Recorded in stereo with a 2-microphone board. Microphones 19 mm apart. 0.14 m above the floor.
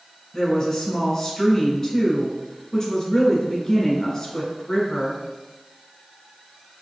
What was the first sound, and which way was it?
A woman speaking, 20° left (ahead or behind).